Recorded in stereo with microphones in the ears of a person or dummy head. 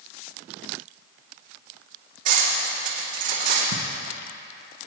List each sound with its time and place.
2.2 s cutlery clinking: 45° right (ahead or behind), 2.5 m
3.7 s ticking: 60° right (ahead or behind), 1.1 m